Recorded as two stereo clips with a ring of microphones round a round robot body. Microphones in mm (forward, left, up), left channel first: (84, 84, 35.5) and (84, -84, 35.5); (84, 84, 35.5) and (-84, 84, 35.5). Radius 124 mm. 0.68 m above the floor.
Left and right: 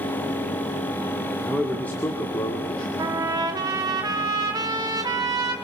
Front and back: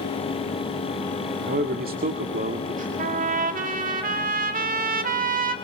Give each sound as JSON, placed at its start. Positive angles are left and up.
{"t": 1.5, "sound": "a man speaking", "azimuth_deg": 180, "distance_m": 1.9}
{"t": 3.0, "sound": "a trumpet", "azimuth_deg": -155, "distance_m": 1.9}